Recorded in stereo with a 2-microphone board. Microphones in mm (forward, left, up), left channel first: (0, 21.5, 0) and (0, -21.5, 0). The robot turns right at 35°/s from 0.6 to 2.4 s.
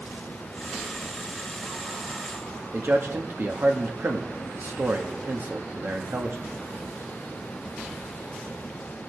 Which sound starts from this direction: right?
A man speaking, at 2.7 s.